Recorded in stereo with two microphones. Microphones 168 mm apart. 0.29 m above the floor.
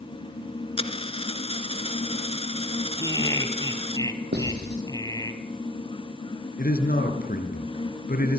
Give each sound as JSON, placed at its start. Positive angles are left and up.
{"t": 0.8, "sound": "a dropped coin", "side_deg": 35, "distance_m": 1.5}
{"t": 3.0, "sound": "laughter", "side_deg": 20, "distance_m": 2.5}
{"t": 4.3, "sound": "writing", "side_deg": -75, "distance_m": 6.0}
{"t": 6.6, "sound": "a man speaking", "side_deg": 60, "distance_m": 4.5}